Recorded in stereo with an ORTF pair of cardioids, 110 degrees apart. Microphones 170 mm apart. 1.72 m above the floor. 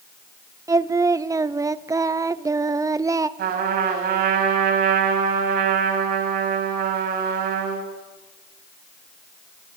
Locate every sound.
0.7 s singing: 20° right, 0.9 m
3.4 s a trumpet: 65° right, 7.5 m